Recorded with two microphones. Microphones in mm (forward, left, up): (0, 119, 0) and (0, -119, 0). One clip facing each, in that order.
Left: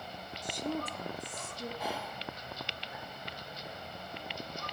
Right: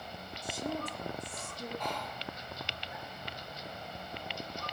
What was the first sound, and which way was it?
A woman speaking, 10° right (ahead or behind).